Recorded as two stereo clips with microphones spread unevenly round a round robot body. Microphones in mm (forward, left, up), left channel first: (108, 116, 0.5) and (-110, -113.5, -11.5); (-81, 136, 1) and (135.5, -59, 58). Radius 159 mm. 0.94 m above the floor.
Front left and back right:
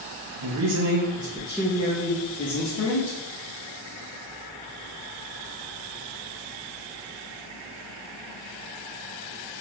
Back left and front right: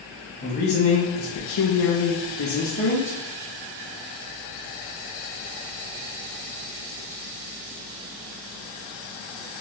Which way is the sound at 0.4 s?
165° right.